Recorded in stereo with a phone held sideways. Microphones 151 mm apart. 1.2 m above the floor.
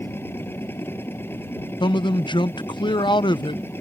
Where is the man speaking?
30° left (ahead or behind).